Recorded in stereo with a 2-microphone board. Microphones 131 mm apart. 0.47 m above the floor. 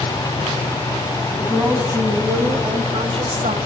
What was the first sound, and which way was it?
A woman speaking, 10° right (ahead or behind).